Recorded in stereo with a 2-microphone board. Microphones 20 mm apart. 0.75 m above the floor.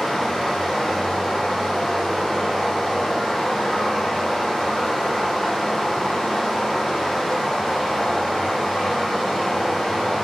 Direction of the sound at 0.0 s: 20° left (ahead or behind).